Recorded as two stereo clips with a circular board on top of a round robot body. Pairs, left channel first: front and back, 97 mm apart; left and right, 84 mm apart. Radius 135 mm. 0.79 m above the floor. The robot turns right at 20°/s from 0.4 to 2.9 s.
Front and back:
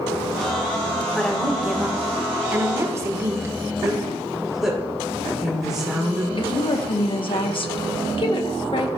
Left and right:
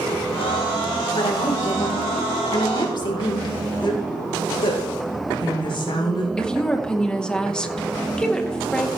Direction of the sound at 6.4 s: 10° left.